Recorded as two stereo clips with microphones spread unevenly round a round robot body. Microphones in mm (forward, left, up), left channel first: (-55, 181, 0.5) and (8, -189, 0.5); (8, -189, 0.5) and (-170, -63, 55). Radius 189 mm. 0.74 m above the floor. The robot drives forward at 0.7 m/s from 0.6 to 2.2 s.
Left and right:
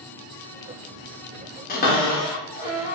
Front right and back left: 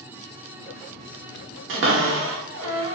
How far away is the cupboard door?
About 1.1 m.